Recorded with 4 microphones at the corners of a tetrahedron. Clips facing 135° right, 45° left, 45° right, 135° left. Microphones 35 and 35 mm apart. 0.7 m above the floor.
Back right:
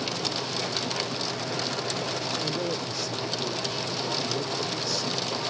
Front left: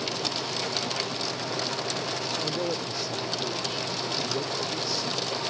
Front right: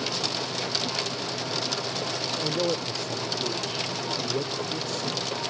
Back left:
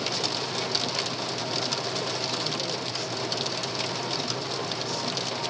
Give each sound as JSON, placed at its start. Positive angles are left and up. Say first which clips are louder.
{"t": 2.4, "sound": "a man speaking", "louder": "even, front right 4 dB", "azimuth_deg": -35}